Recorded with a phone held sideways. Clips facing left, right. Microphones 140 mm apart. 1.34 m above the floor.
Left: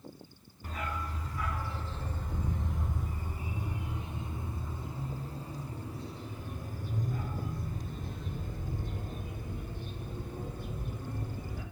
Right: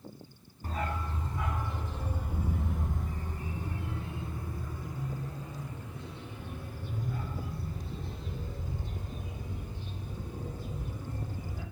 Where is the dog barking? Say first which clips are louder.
Right 3 dB; 35° right (ahead or behind), 3 m; by 11.6 s 60° left (ahead or behind), 7 m.